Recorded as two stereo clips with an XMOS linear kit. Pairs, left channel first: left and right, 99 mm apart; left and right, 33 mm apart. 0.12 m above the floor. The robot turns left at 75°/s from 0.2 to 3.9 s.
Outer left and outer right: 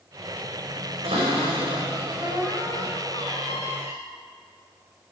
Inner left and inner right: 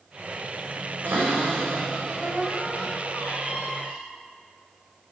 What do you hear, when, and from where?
1.0 s a cupboard door: 75° right, 4.5 m; by 4.0 s 70° left, 4.5 m